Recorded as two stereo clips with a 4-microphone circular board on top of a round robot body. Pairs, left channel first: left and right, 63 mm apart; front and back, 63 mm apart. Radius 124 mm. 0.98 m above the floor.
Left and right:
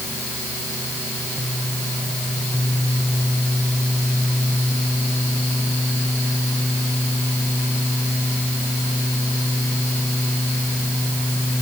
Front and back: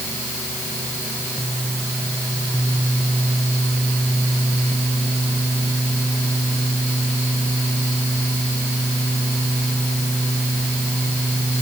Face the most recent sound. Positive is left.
No sound to turn to.